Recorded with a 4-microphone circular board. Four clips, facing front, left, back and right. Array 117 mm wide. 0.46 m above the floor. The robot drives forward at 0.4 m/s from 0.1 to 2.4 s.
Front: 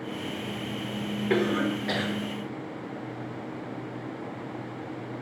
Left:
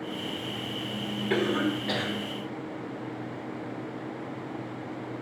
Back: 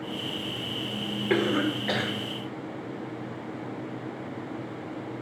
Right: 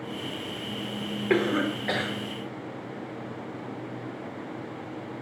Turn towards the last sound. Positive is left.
turn(degrees=-125)